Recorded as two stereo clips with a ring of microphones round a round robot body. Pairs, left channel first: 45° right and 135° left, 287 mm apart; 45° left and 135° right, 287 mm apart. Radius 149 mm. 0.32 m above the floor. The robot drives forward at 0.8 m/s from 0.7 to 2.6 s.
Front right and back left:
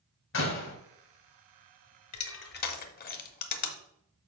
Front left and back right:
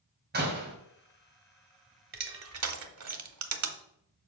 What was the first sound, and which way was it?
A door slam, 85° right.